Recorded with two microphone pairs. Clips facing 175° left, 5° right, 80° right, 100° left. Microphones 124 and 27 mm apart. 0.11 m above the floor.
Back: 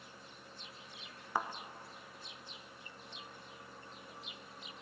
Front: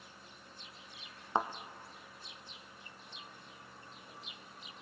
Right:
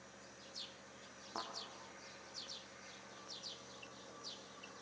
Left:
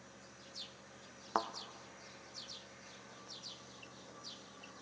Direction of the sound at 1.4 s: 55° left.